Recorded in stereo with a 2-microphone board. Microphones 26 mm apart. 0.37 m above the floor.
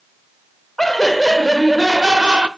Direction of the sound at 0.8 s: 15° left (ahead or behind).